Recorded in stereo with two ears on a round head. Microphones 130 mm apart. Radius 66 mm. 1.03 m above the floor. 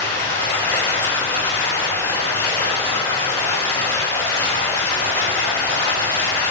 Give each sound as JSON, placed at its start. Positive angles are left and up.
{"t": 0.0, "sound": "running water", "side_deg": 20, "distance_m": 3.0}